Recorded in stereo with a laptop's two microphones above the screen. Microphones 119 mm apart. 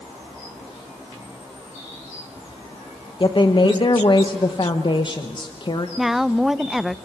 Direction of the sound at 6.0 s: Centre (ahead or behind).